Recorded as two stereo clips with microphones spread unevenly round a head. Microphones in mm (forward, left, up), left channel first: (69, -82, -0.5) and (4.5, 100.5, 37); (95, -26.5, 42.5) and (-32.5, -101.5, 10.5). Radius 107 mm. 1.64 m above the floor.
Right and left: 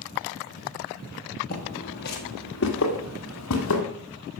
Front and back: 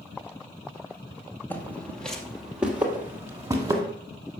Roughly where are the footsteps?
Ahead right.